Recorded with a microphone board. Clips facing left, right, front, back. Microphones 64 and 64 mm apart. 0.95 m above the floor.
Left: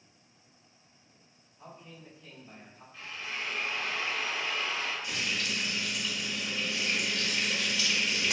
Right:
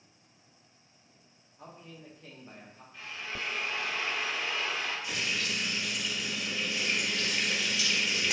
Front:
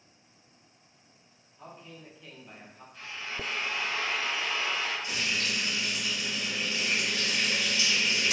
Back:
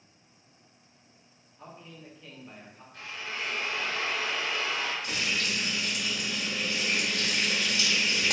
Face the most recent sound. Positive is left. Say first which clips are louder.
# even, back 1 dB
turn(degrees=-175)